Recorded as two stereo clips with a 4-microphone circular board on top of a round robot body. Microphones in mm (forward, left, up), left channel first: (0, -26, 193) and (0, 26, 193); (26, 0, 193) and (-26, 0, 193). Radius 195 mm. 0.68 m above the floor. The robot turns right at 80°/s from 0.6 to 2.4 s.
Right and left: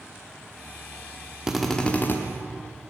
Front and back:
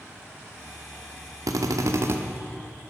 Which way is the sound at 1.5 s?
165° left.